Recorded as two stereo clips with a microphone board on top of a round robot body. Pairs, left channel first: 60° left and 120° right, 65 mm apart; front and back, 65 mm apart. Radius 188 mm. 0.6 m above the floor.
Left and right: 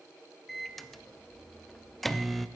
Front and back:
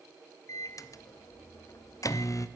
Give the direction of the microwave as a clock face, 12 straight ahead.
1 o'clock.